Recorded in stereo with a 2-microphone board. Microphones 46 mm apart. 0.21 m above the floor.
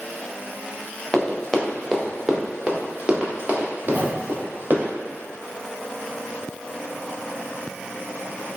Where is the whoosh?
40° right (ahead or behind), 0.8 m.